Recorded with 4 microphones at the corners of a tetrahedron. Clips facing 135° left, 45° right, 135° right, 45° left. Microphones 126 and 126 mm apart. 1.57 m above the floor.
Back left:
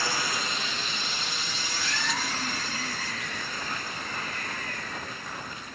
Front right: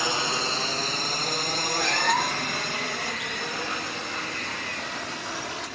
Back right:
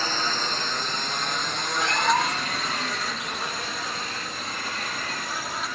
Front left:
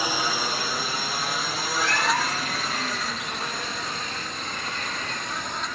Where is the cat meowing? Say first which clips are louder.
Front right 8 dB, back right 2 dB; 70° right.